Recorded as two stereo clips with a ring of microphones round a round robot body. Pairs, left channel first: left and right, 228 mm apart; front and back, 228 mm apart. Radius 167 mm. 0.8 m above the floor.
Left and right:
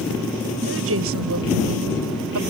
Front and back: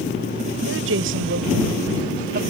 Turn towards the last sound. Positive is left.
turn(degrees=-120)